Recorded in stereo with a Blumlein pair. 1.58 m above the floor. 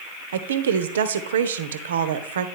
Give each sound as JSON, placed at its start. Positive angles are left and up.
{"t": 0.3, "sound": "a woman speaking", "azimuth_deg": -60, "distance_m": 0.6}